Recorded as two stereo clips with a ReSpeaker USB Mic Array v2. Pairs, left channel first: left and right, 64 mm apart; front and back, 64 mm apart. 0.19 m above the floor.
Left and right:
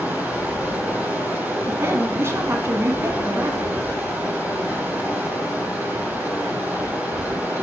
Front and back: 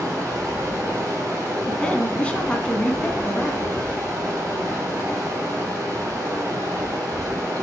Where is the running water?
150° right, 4.5 m.